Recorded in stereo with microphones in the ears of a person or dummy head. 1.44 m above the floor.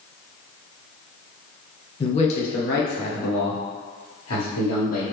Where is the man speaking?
30° left (ahead or behind), 1.0 m; by 5.0 s 80° left, 2 m.